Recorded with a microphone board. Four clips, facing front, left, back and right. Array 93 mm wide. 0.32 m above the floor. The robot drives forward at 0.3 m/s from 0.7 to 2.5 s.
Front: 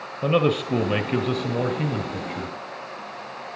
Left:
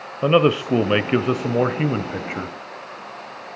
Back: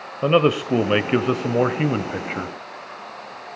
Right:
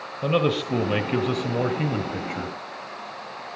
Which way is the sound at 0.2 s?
125° left.